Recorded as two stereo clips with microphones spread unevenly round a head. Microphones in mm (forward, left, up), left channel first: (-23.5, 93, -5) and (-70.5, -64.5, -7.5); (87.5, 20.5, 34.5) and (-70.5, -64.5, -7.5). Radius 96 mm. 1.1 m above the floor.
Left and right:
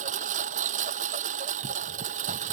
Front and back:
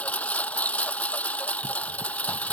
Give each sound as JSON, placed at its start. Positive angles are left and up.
{"t": 0.0, "sound": "a lawn mower", "azimuth_deg": -50}